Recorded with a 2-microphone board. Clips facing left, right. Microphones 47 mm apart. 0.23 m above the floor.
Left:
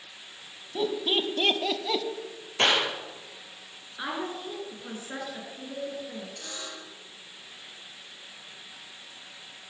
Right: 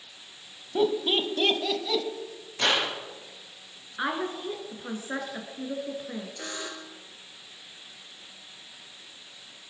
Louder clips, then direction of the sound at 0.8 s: Right 3 dB; 25° right (ahead or behind).